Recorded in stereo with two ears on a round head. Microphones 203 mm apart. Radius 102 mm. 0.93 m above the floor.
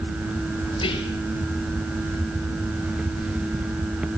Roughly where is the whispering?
Left.